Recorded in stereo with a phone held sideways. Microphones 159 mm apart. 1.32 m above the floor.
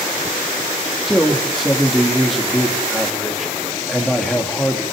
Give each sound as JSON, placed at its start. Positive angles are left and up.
{"t": 1.1, "sound": "a man speaking", "side_deg": 0, "distance_m": 3.0}